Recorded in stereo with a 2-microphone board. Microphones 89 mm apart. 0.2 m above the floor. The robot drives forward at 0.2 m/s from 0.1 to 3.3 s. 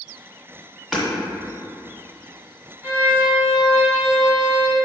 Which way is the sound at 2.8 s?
25° right (ahead or behind).